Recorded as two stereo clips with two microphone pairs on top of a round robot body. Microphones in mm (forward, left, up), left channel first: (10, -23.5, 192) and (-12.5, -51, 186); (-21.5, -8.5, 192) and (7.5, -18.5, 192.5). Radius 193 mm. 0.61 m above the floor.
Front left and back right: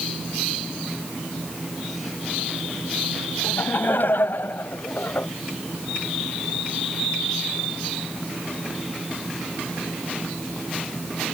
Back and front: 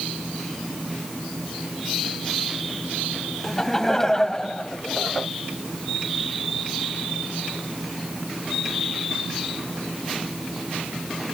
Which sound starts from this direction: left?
Laughter, at 3.4 s.